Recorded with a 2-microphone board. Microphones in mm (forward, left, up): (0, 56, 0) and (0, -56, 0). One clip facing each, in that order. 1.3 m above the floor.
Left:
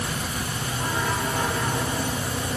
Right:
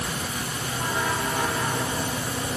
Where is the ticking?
No ticking in this recording.